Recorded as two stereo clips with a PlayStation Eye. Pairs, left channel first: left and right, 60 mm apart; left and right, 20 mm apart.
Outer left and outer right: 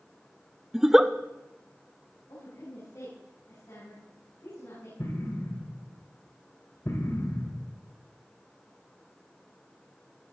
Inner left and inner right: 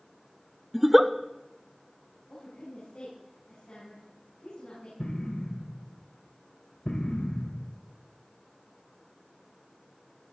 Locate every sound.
0.7 s a giggle: 5° right (ahead or behind), 0.5 m
2.3 s a woman speaking: 75° left (ahead or behind), 7 m
5.0 s an explosion: 70° left (ahead or behind), 1.9 m